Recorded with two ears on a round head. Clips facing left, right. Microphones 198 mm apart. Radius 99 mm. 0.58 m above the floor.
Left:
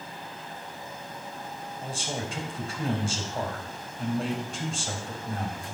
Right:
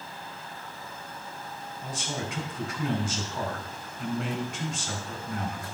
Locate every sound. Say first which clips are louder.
1.8 s a man speaking: left 1 dB; 30° left (ahead or behind), 2.5 m